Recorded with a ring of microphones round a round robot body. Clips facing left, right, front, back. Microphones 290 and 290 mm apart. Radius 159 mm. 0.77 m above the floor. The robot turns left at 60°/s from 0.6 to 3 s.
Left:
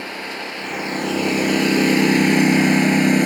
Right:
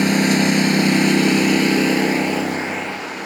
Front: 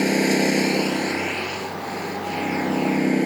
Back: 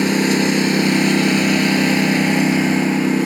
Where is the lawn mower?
110° right; by 3.3 s 105° left.